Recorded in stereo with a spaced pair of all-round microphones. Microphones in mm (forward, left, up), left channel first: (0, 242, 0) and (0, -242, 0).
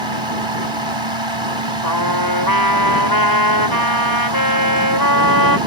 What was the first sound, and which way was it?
A fan, 70° right (ahead or behind).